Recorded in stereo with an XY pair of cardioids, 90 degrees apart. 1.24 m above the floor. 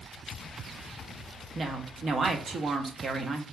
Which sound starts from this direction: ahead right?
A woman speaking, at 1.6 s.